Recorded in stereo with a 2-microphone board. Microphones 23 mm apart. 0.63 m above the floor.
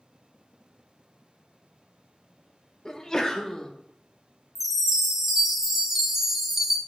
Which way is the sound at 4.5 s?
15° right (ahead or behind).